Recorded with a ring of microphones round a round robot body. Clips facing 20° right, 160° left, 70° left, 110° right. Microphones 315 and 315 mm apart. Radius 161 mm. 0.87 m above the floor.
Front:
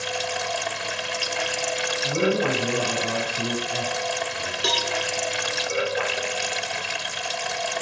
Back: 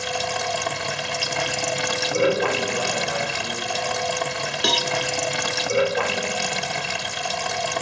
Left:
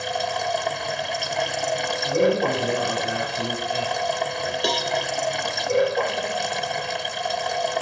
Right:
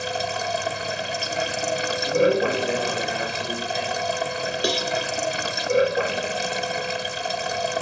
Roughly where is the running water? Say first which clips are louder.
Back 2 dB, left 1 dB; behind.